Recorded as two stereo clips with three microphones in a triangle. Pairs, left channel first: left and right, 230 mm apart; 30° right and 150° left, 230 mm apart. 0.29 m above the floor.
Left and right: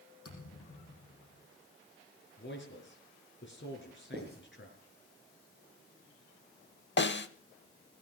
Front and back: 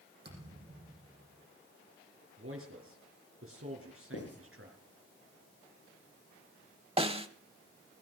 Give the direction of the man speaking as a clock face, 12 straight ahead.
8 o'clock.